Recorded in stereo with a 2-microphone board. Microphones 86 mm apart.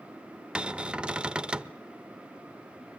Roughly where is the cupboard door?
Centre.